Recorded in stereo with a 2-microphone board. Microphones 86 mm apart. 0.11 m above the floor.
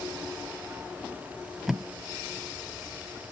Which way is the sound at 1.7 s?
5° right (ahead or behind).